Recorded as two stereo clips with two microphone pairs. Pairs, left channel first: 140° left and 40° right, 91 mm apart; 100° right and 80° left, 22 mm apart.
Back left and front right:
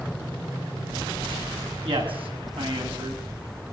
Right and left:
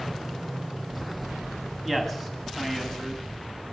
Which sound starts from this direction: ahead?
A man speaking, at 1.8 s.